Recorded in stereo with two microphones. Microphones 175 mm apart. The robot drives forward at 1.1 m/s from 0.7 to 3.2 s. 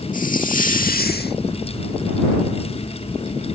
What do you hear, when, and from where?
0.1 s a hiss: 55° left (ahead or behind); by 1.4 s 75° left (ahead or behind)